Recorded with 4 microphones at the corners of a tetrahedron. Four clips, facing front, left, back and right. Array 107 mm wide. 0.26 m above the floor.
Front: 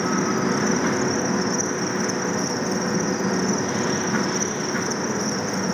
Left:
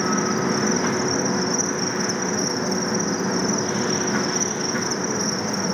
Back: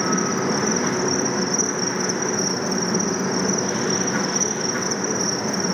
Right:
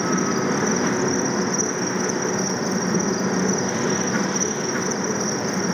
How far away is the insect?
About 6 m.